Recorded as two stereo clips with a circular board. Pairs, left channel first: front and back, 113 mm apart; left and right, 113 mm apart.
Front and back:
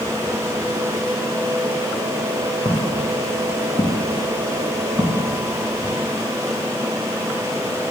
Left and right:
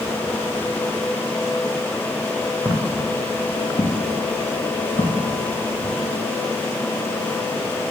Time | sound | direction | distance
2.6 | footsteps | 20° left | 1.6 m